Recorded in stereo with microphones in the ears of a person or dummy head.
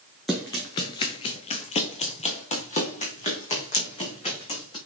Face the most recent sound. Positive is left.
turn(degrees=35)  # may be behind; listen again after turning